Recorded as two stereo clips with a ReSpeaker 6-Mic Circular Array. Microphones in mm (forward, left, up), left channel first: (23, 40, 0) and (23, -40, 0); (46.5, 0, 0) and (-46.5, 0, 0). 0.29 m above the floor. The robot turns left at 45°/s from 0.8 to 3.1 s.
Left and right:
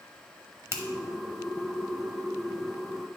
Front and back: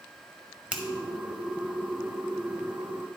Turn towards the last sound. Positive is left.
turn(degrees=145)